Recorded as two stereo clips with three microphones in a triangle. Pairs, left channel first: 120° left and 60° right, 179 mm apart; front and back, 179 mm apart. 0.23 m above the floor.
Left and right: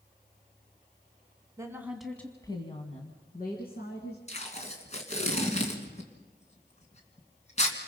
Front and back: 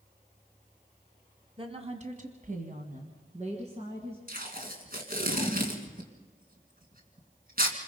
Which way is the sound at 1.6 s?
125° right.